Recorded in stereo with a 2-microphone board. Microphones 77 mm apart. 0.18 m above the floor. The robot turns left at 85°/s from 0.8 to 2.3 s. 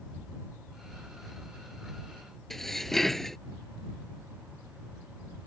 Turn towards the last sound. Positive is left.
turn(degrees=5)  # may be behind; listen again after turning